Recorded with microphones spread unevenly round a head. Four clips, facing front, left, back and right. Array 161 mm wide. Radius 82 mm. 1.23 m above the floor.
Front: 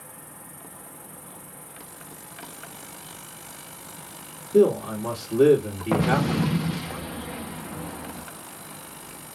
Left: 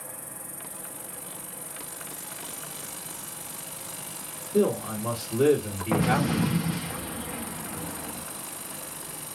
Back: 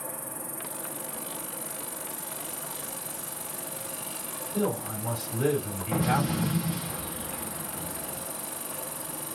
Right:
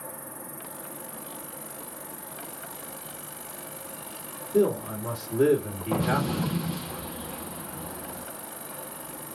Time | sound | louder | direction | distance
0.0 | an insect | right 3 dB, back 7 dB | 150° right | 0.9 m
4.5 | a man speaking | right 1 dB, front 11 dB | 15° right | 2 m
5.9 | an explosion | left 2 dB, front 4 dB | 20° left | 0.7 m